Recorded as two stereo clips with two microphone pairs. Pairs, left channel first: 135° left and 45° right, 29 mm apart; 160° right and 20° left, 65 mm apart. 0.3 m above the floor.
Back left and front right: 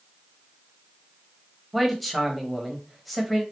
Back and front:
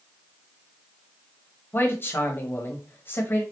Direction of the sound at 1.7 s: 135° right.